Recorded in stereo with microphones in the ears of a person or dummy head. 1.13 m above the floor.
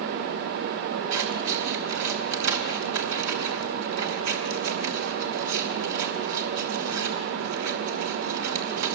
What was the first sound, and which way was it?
Scissors, 80° right.